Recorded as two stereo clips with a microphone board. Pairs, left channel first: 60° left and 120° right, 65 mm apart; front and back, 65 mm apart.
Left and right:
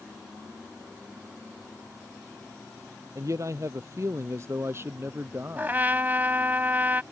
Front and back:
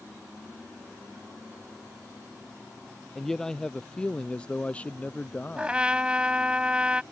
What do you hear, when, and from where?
3.1 s a man speaking: 85° right; by 5.8 s 65° right
5.6 s a trumpet: 125° right